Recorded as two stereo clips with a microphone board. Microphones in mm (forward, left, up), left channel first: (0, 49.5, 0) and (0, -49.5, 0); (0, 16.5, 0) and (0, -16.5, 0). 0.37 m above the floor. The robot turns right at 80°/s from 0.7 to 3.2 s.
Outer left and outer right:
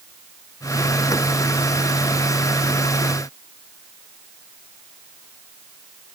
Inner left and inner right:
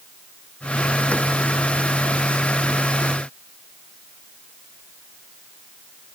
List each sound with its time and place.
Only background noise.